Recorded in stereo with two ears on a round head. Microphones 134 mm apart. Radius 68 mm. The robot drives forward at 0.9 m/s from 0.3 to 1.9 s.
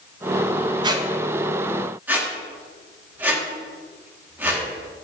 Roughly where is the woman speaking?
I don't hear a woman speaking.